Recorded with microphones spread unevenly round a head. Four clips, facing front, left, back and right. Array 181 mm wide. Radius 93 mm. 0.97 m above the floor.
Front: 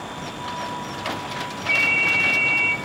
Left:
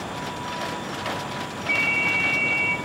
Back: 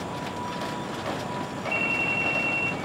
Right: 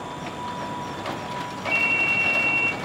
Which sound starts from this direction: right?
A ringtone, at 1.7 s.